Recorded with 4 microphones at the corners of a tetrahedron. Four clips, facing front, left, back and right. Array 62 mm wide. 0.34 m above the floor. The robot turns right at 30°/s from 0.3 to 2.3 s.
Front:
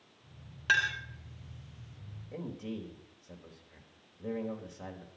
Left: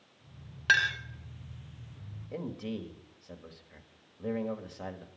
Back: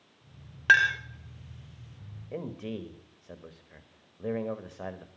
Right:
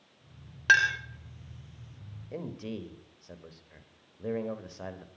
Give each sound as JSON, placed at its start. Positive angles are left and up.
{"t": 0.7, "sound": "a clink", "azimuth_deg": -165, "distance_m": 0.8}
{"t": 2.3, "sound": "a man speaking", "azimuth_deg": -175, "distance_m": 1.2}